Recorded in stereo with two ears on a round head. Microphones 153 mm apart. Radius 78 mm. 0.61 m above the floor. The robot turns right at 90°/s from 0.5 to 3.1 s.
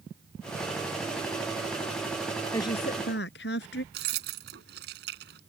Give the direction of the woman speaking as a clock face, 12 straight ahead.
12 o'clock.